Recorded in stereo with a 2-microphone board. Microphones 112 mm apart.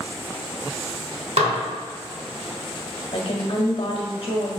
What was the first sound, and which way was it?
Dishes clattering, 65° right (ahead or behind).